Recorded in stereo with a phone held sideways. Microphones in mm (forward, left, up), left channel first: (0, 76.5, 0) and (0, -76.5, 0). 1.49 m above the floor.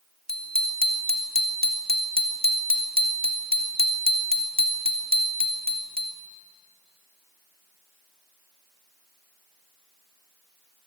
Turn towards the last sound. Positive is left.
turn(degrees=-80)